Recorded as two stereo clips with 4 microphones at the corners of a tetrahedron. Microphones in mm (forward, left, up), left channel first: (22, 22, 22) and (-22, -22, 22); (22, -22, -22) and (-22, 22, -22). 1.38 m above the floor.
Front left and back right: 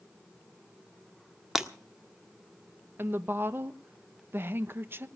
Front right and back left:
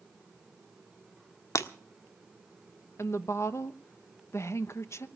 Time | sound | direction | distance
1.6 | breaking glass | 55° right | 1.4 m
3.0 | a woman speaking | 85° right | 1.1 m